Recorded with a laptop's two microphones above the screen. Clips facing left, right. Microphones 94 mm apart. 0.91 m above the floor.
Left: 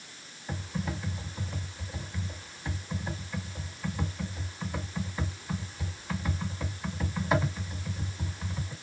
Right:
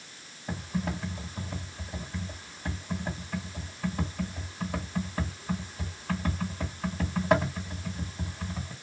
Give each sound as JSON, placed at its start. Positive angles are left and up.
{"t": 0.5, "sound": "typing on a keyboard", "side_deg": -65, "distance_m": 1.9}